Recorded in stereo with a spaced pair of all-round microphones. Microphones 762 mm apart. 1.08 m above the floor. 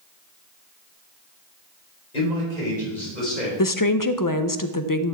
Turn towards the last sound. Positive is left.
turn(degrees=30)  # may be behind; listen again after turning